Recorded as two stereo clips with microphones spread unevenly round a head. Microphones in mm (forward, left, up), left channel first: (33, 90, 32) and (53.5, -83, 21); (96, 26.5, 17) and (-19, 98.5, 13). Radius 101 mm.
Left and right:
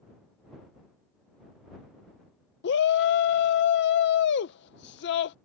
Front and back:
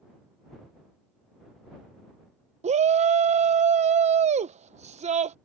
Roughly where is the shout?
Behind left.